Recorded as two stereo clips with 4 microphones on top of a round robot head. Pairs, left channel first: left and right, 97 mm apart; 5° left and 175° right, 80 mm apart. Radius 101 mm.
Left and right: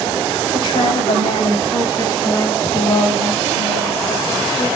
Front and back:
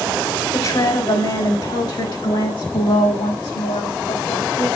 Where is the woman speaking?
45° left, 5.5 m; by 4.7 s 20° left, 6 m.